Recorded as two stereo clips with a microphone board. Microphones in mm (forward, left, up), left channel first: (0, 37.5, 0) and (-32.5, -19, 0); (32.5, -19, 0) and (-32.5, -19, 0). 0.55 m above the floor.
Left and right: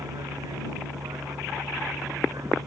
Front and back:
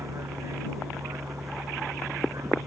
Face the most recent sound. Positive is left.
turn(degrees=-145)